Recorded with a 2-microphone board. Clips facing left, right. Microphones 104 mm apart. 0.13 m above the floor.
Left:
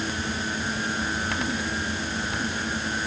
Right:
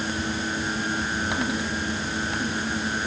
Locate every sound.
Only background noise.